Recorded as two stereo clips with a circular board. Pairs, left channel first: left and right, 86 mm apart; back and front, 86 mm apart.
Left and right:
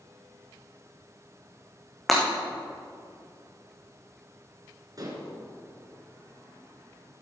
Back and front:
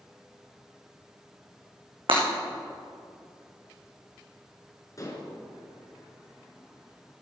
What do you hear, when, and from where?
2.1 s breaking glass: straight ahead, 3.5 m
5.0 s dishes clattering: 130° right, 2.5 m